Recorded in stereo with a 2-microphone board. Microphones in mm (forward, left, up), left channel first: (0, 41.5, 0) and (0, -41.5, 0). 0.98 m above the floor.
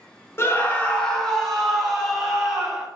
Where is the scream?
30° left (ahead or behind), 0.8 m; by 2.9 s 10° right (ahead or behind), 1.9 m.